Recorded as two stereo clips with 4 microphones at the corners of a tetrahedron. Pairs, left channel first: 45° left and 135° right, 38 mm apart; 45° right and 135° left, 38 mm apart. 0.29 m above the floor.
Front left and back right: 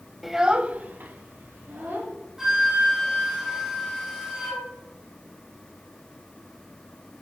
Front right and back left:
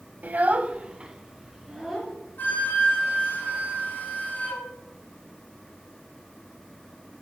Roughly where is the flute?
Ahead right.